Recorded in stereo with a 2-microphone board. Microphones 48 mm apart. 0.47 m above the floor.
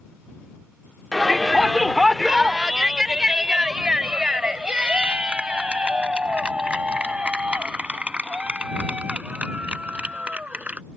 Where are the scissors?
No scissors in this recording.